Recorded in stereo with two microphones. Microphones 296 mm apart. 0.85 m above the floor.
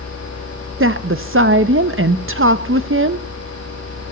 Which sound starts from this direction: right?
A woman speaking, at 0.8 s.